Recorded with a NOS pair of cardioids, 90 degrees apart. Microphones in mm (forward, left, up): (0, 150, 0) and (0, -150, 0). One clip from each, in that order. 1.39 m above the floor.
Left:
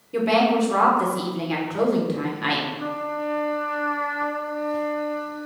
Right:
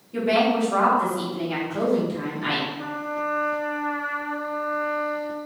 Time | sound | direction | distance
0.1 | a woman speaking | 30° left | 1.2 m
2.8 | a trumpet | 10° left | 1.9 m